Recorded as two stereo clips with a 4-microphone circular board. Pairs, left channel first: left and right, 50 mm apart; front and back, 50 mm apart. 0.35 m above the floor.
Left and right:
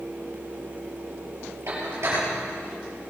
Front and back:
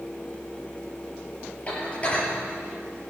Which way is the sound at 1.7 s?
60° right.